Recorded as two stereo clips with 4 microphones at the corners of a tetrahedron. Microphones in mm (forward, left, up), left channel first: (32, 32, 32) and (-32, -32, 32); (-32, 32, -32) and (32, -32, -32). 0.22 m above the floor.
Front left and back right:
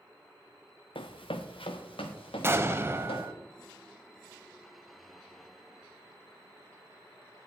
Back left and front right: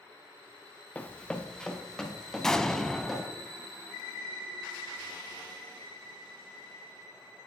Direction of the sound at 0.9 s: 60° left.